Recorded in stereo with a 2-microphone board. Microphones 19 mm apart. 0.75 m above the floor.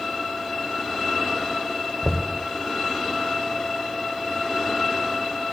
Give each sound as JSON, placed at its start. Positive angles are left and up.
{"t": 2.0, "sound": "knocking", "side_deg": -30, "distance_m": 2.0}